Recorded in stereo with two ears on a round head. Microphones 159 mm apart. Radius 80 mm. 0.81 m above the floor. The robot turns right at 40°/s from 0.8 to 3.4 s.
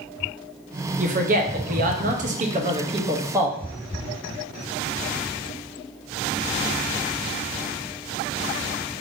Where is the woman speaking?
115° right, 0.6 m; by 3.6 s 20° right, 0.6 m.